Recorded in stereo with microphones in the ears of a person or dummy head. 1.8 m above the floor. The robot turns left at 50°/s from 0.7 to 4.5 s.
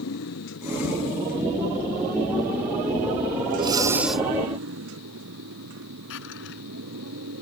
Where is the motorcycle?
80° left; by 7.4 s 80° right.